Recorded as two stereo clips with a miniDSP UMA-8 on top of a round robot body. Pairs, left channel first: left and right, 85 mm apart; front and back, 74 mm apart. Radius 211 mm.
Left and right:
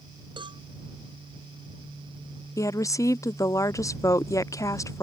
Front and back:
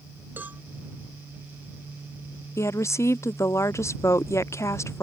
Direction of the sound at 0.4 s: 115° right.